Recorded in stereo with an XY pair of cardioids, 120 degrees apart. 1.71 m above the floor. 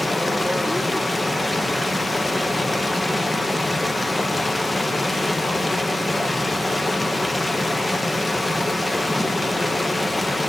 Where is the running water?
10° left, 0.9 m.